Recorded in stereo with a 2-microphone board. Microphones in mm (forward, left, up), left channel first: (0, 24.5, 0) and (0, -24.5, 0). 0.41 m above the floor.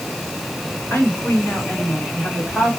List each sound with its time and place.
0.9 s a woman speaking: 50° left (ahead or behind), 3 m; by 2.7 s 25° left (ahead or behind), 3 m